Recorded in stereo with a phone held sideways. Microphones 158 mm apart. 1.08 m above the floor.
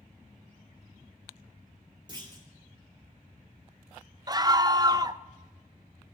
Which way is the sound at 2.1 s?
30° right (ahead or behind).